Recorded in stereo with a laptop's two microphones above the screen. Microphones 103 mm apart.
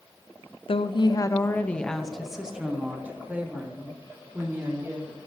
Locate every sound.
0.7 s a woman speaking: 60° left (ahead or behind), 0.6 m; by 5.2 s 25° right (ahead or behind), 2.5 m